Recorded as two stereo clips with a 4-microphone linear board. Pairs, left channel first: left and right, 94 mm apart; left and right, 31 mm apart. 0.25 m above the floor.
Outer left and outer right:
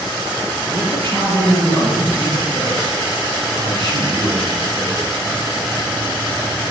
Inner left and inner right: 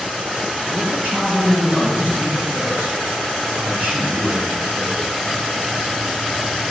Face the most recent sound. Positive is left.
turn(degrees=-50)  # may be behind; listen again after turning